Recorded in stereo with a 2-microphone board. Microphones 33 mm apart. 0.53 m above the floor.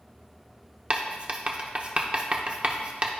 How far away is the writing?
About 0.8 m.